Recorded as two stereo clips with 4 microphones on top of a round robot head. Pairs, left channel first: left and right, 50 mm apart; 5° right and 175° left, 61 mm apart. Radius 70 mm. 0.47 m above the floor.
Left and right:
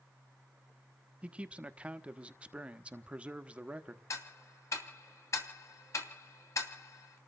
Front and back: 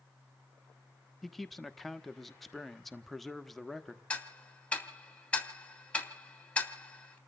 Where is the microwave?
No microwave in this recording.